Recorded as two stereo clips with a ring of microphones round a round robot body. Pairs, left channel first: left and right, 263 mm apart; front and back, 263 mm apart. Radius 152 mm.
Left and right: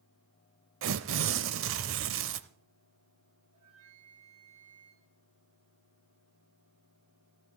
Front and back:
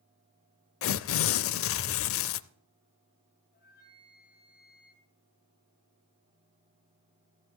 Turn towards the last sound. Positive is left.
turn(degrees=-55)